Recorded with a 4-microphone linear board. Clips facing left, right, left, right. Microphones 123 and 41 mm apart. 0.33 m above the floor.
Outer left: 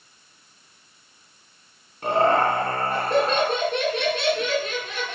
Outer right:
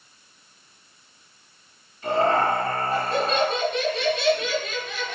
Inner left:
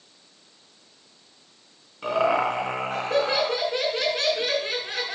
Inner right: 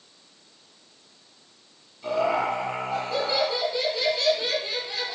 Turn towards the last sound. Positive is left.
turn(degrees=70)  # may be behind; listen again after turning